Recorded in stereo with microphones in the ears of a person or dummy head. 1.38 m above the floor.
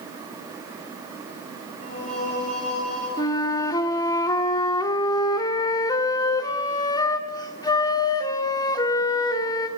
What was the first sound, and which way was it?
Singing, 35° left (ahead or behind).